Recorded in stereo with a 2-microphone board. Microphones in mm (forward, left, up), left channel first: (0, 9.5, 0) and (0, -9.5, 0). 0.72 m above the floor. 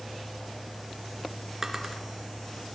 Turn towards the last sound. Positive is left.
turn(degrees=-20)  # may be behind; listen again after turning